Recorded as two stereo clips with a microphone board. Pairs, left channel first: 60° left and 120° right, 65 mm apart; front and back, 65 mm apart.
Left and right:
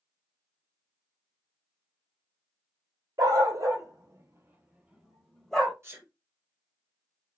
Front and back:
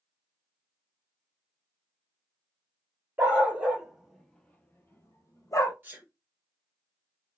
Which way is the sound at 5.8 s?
135° right.